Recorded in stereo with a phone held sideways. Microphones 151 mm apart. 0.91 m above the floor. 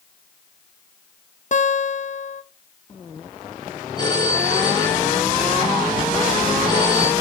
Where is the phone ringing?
30° left (ahead or behind), 1.9 m.